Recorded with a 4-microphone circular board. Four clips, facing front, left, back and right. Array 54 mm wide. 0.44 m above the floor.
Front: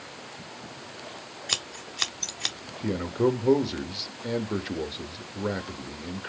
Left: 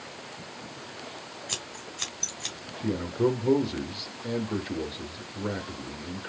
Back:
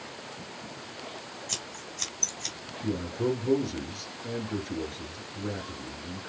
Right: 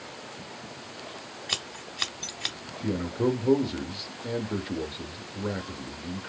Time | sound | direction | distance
1.5 | scissors | 35° right | 0.9 m
2.8 | a man speaking | straight ahead | 1.0 m